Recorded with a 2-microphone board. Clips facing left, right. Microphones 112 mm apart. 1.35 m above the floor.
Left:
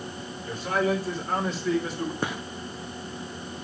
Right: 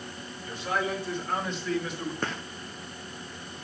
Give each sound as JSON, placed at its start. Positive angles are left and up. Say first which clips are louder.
{"t": 0.5, "sound": "a man speaking", "louder": "left 5 dB", "side_deg": 45, "distance_m": 5.0}
{"t": 2.2, "sound": "a gunshot", "louder": "left 3 dB", "side_deg": 10, "distance_m": 0.9}